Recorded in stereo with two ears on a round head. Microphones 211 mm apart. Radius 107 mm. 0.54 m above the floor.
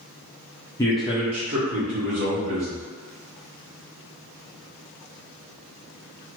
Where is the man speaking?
15° left (ahead or behind), 0.6 m; by 2.8 s 65° right (ahead or behind), 1.7 m.